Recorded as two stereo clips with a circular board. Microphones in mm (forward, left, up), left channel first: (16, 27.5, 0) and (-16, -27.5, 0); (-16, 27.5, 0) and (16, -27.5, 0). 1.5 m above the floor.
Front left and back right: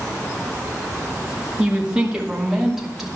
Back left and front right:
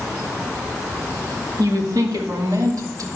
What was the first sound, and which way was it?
A woman speaking, 50° right.